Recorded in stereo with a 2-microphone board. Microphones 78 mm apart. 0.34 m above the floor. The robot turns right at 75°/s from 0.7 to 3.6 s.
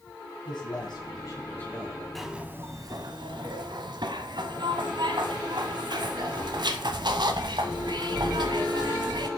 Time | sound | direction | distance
0.5 | a man speaking | 85° left | 2.5 m
2.1 | a zipper | straight behind | 0.8 m